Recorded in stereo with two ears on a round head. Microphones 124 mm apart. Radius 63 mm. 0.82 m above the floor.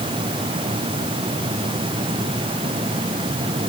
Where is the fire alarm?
No fire alarm in this recording.